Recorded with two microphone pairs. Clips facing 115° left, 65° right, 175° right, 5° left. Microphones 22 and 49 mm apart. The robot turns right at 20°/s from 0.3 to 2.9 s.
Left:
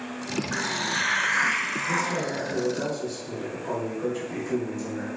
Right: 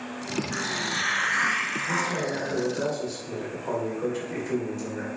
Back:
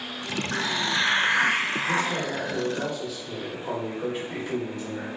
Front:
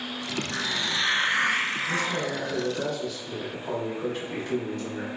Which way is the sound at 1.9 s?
125° right.